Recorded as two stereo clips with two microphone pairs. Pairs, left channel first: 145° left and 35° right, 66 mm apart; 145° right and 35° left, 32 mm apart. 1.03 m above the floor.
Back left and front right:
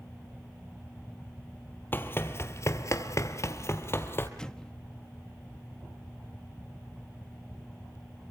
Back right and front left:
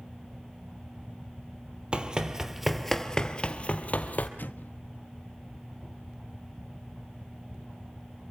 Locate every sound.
1.9 s running footsteps: 90° left, 1.9 m; by 4.3 s 165° right, 2.5 m
4.4 s an explosion: 140° right, 1.1 m